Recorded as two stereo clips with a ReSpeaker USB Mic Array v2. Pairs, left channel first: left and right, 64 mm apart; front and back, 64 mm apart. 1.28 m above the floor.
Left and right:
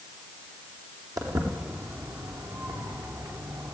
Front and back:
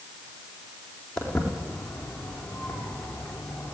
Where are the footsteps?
80° right, 4.5 m.